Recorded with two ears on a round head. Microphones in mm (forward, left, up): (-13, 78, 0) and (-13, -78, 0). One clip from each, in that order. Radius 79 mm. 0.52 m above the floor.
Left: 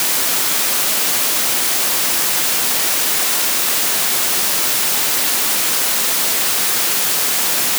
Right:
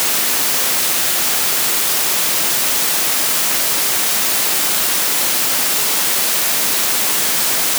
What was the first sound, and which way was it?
Only background noise.